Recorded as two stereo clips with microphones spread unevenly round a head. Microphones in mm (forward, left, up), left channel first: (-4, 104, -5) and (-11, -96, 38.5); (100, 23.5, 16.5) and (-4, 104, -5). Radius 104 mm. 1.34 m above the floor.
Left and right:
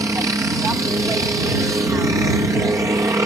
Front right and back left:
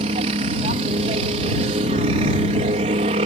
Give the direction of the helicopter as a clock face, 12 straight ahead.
6 o'clock.